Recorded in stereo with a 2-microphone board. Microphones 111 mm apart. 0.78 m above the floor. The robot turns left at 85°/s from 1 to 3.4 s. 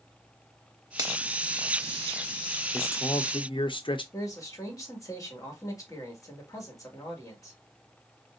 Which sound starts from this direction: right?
A finger snap, at 1.0 s.